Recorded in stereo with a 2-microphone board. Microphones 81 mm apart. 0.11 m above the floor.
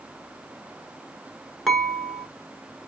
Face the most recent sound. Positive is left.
turn(degrees=0)  # may be behind; listen again after turning